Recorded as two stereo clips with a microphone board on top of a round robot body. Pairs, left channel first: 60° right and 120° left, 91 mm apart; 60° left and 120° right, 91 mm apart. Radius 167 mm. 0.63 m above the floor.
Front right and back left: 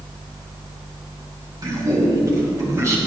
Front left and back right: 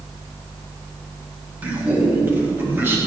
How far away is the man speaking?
About 5.5 m.